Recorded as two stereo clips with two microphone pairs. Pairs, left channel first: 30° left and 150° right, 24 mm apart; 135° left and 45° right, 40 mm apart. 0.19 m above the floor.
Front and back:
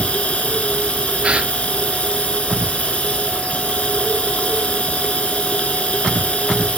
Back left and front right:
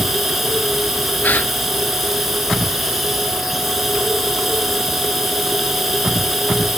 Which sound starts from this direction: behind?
A gasp, at 1.2 s.